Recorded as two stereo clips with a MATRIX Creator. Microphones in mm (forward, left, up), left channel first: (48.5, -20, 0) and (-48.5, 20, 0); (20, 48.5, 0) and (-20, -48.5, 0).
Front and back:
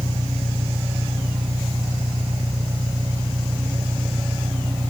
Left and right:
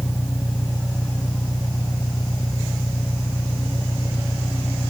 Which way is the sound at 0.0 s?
130° left.